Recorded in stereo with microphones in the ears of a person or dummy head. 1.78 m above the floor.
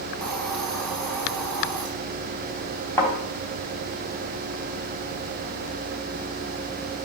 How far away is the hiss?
About 1.7 m.